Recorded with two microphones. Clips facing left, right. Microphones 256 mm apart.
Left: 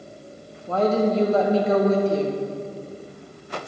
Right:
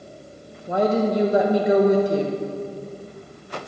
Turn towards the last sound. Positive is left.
turn(degrees=-15)  # may be behind; listen again after turning